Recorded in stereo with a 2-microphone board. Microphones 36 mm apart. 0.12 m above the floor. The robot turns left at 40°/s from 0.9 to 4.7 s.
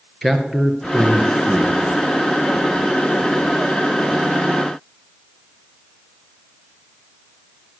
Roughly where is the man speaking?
Ahead.